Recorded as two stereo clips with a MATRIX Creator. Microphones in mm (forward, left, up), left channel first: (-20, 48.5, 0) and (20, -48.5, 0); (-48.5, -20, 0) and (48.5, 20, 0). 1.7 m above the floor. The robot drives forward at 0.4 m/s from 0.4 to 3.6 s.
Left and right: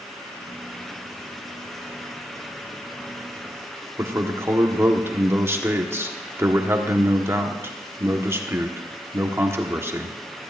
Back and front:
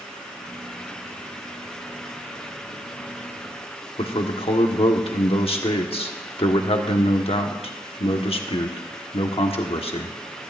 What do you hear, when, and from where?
4.0 s a man speaking: 135° right, 1.3 m